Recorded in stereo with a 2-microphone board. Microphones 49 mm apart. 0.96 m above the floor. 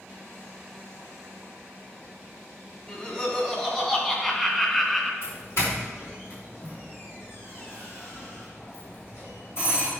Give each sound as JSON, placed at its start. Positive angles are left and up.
{"t": 2.9, "sound": "laughter", "side_deg": 25, "distance_m": 2.5}
{"t": 5.2, "sound": "a doorbell", "side_deg": 55, "distance_m": 3.0}